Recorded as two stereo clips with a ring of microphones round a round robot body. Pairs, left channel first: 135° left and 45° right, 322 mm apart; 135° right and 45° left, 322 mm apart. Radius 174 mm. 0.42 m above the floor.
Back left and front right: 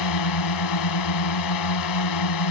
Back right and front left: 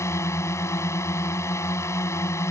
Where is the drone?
145° left.